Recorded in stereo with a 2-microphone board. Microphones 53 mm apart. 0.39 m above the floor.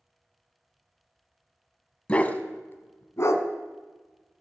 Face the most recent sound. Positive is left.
turn(degrees=65)  # may be behind; listen again after turning